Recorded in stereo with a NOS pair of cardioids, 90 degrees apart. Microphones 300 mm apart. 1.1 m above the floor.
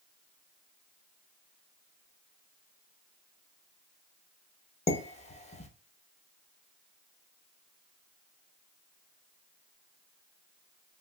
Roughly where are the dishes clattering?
Ahead.